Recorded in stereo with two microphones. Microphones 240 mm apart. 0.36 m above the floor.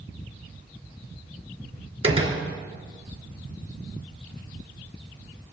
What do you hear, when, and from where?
2.0 s a door slam: 25° right (ahead or behind), 3 m